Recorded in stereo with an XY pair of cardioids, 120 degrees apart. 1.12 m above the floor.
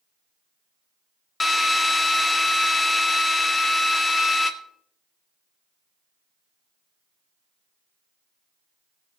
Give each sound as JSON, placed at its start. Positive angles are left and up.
{"t": 1.4, "sound": "a drill", "azimuth_deg": 20, "distance_m": 1.0}